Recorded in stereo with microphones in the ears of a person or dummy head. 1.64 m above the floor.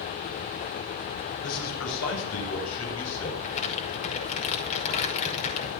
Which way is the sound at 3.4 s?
40° left (ahead or behind).